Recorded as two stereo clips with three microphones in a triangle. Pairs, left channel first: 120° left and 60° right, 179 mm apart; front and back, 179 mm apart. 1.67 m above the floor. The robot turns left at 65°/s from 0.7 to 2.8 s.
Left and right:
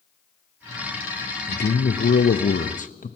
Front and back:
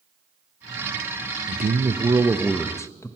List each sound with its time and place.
1.5 s a man speaking: 160° left, 0.6 m; by 3.2 s 75° left, 0.6 m